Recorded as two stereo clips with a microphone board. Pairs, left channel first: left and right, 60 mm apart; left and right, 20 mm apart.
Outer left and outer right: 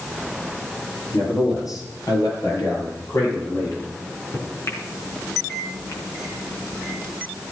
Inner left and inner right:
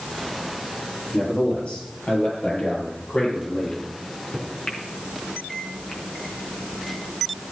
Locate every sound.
1.1 s a man speaking: 75° left (ahead or behind), 9 m; by 4.0 s 65° left (ahead or behind), 8.5 m
3.9 s a microwave: 50° left (ahead or behind), 4 m